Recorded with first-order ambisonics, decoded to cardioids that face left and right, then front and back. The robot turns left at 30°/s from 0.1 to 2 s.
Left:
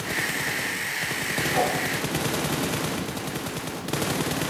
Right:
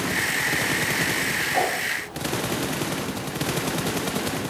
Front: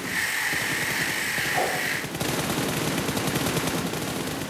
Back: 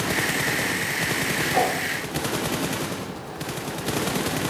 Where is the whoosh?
160° right, 1.2 m; by 1.8 s 170° right, 1.2 m.